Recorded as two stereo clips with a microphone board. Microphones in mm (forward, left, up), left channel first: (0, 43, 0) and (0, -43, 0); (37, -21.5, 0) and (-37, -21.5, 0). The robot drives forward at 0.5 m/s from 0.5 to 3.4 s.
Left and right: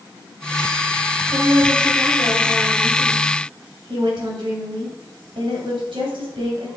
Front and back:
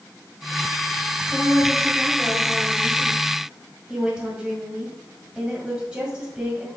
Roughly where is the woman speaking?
Right.